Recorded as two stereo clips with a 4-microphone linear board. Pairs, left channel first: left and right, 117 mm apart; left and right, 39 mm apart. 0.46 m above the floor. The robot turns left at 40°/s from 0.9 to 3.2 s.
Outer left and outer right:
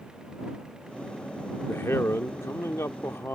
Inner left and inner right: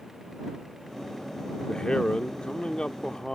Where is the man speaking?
20° left (ahead or behind).